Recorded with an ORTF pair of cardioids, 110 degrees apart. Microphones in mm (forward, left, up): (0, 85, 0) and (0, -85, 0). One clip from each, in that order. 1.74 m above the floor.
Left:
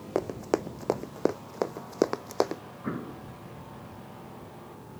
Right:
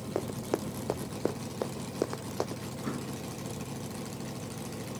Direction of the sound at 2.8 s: 20° left.